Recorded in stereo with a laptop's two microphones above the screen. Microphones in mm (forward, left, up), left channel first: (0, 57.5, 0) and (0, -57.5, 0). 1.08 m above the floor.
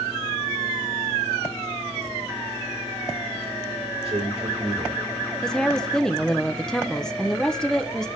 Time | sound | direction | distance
4.0 | a man speaking | 65° right (ahead or behind) | 4 m
5.4 | a woman speaking | 5° left (ahead or behind) | 0.7 m